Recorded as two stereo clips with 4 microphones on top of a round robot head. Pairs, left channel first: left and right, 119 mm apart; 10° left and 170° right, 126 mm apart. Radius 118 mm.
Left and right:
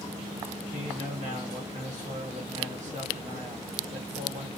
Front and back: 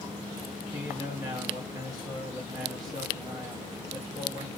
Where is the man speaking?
110° right, 1.4 m.